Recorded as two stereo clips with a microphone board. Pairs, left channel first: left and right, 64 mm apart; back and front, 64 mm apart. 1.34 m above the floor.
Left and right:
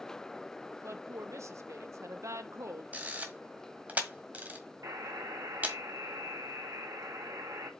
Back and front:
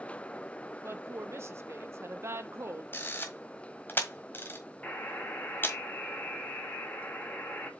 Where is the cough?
I don't hear a cough.